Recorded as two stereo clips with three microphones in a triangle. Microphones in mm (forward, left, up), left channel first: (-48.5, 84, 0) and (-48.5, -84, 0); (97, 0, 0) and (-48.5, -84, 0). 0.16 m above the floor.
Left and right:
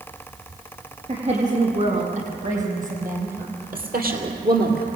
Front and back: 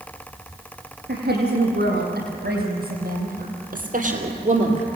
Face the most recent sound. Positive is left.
turn(degrees=-100)